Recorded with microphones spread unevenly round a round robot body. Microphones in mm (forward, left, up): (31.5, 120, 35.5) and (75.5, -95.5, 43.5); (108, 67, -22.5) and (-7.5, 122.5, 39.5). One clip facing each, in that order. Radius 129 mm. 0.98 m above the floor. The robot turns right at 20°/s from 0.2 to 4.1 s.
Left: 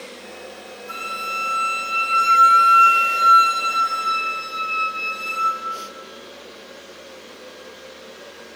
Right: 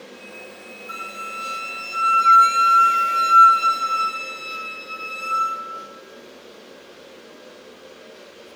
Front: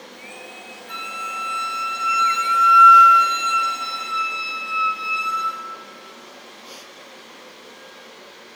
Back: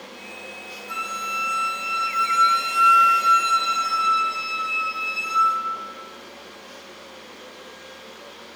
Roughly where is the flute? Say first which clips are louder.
Left 3 dB, back 1 dB; behind.